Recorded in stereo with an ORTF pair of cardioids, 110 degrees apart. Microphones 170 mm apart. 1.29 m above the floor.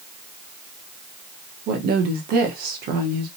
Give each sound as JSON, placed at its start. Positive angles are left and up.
{"t": 1.7, "sound": "a woman speaking", "azimuth_deg": -65, "distance_m": 0.9}